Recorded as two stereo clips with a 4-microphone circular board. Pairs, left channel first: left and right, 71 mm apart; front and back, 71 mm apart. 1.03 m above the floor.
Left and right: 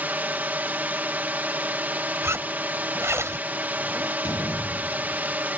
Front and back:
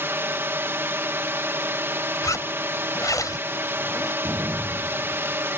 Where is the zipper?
40° right.